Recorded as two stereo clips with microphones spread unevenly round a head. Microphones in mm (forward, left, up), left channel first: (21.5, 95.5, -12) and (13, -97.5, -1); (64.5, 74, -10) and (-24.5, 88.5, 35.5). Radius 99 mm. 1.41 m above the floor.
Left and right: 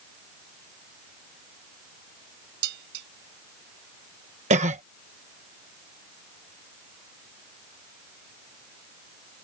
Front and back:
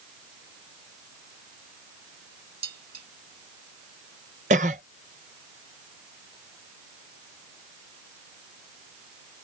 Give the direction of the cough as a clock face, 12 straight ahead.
5 o'clock.